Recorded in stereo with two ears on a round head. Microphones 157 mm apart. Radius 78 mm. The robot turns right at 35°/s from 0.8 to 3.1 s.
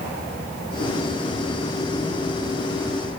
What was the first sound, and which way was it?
Only background noise.